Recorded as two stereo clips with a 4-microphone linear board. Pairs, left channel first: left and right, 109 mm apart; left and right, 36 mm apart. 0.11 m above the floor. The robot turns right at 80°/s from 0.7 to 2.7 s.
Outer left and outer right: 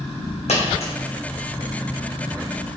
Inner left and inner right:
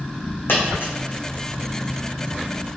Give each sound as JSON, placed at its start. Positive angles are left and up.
{"t": 0.5, "sound": "a dropped coin", "side_deg": 75, "distance_m": 1.5}